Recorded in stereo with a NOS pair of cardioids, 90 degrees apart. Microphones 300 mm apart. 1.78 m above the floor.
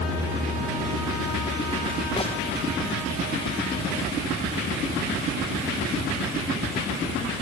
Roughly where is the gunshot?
Ahead.